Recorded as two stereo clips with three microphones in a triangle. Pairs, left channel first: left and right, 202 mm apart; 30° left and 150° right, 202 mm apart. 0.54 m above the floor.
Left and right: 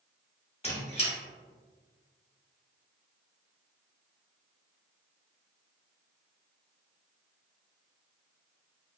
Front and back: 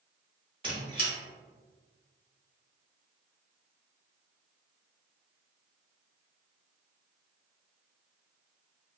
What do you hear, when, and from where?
0.6 s a squeak: 150° left, 1.1 m